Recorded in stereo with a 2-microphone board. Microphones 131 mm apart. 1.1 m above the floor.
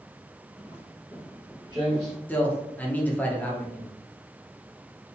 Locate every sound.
0.6 s footsteps: 35° right (ahead or behind), 1.6 m; by 2.2 s 25° right (ahead or behind), 1.4 m
2.3 s a man speaking: 15° left (ahead or behind), 0.8 m